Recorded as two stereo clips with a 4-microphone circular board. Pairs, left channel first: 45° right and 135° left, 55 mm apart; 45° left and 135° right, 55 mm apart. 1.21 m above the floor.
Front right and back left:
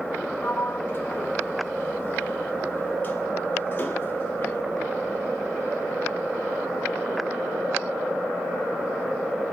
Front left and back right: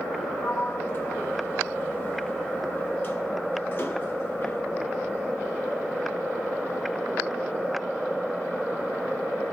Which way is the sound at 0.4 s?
5° left.